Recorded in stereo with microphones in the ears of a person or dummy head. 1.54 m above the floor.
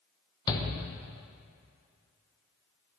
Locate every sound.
0.5 s a shout: 25° left (ahead or behind), 1.1 m